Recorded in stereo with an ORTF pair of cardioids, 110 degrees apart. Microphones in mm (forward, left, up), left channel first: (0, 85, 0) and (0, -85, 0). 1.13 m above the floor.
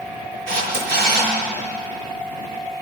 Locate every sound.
0.5 s a camera shutter: 65° right, 6 m